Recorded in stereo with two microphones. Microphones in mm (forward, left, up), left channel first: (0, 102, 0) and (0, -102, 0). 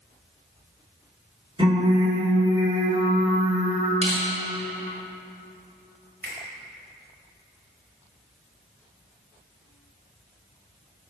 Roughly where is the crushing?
Right.